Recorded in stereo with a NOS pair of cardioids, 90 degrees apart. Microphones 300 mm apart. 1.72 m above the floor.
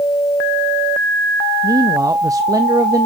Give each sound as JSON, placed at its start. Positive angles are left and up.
{"t": 1.6, "sound": "a man speaking", "azimuth_deg": -10, "distance_m": 0.6}